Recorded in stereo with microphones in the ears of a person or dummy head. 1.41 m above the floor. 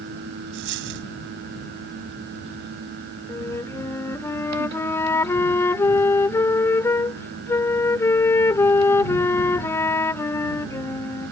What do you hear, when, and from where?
0.5 s a dropped coin: 55° right (ahead or behind)
3.3 s a flute: 15° left (ahead or behind)